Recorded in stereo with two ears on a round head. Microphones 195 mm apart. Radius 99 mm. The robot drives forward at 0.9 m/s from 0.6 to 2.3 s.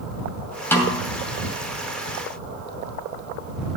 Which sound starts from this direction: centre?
A snare drum, at 0.7 s.